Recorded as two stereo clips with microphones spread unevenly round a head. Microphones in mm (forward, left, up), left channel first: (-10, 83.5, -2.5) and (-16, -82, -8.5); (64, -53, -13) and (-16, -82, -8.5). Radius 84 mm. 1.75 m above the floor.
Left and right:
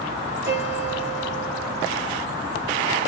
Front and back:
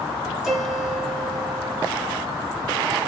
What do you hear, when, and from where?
0.4 s a piano: 80° right, 2.5 m